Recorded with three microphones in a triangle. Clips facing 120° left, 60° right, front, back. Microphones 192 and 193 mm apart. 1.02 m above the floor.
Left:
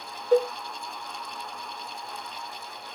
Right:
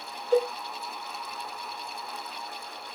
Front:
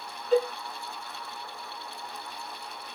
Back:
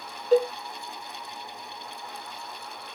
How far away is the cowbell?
About 0.7 m.